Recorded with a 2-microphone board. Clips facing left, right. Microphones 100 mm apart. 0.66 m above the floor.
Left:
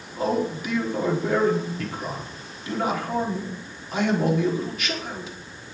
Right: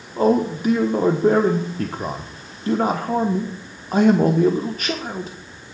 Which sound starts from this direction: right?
A man speaking, at 0.2 s.